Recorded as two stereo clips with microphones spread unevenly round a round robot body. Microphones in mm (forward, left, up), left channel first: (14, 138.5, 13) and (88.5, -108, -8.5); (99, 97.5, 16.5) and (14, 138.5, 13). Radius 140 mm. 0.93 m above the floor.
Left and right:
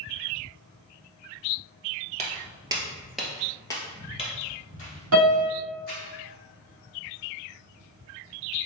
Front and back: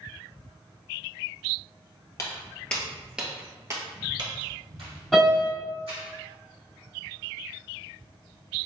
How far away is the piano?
About 1.5 m.